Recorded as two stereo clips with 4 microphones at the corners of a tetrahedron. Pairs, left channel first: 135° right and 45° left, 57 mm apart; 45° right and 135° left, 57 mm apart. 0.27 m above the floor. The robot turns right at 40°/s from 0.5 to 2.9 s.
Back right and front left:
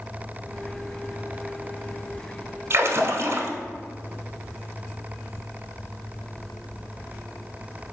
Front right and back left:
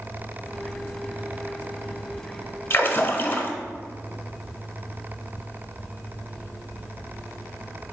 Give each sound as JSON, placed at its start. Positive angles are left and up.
{"t": 2.7, "sound": "a splash", "azimuth_deg": 0, "distance_m": 0.5}